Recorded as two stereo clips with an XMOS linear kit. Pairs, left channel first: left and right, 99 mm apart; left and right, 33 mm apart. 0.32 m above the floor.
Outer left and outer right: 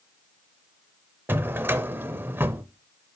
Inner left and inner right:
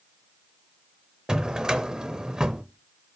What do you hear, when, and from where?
1.3 s a drawer: 25° right (ahead or behind), 0.6 m